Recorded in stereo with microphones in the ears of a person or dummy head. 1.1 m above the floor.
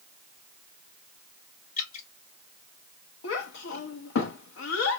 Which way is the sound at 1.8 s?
55° left (ahead or behind).